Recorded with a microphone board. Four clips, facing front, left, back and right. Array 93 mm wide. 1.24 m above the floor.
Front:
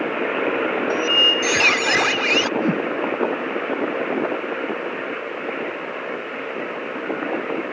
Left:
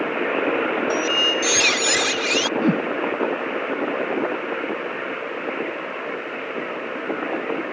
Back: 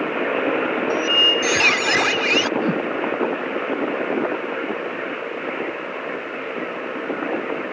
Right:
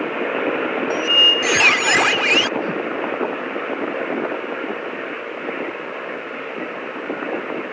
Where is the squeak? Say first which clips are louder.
Right 2 dB, even; 90° right.